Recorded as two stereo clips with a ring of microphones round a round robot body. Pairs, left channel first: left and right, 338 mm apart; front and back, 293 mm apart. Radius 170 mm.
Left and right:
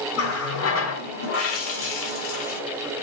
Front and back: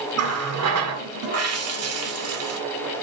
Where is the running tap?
140° left, 1.7 m.